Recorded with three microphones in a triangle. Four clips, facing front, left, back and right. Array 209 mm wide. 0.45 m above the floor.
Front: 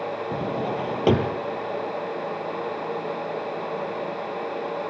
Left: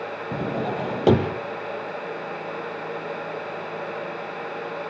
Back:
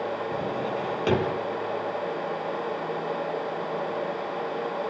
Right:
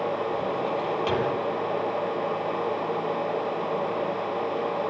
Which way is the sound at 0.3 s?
65° left.